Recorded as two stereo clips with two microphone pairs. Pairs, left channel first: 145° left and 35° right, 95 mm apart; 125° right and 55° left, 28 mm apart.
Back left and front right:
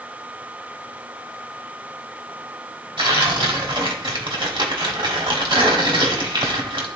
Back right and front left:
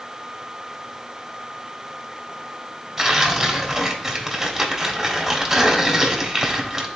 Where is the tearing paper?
25° right, 1.5 m.